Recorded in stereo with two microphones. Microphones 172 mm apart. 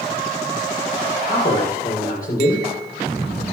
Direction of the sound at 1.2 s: 60° left (ahead or behind).